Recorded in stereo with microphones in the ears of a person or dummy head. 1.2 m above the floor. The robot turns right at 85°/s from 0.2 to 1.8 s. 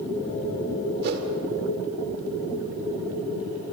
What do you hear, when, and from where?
1.0 s a whoosh: 65° right (ahead or behind), 2.5 m; by 1.3 s 45° right (ahead or behind), 2.5 m